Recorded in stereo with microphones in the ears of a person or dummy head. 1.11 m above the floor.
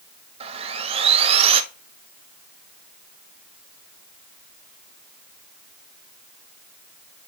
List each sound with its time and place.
0.4 s sawing: 25° right (ahead or behind), 0.7 m